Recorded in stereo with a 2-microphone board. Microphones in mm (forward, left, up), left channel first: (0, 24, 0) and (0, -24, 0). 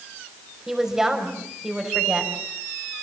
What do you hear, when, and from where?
0.7 s a woman speaking: 10° right (ahead or behind), 5 m